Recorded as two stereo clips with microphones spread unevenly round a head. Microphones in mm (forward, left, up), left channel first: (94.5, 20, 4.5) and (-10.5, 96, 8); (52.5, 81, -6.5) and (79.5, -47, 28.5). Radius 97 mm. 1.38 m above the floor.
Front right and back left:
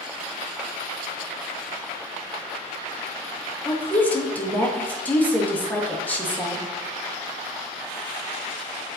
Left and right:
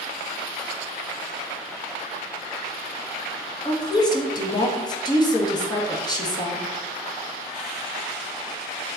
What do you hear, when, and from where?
3.6 s a woman speaking: 40° left, 1.9 m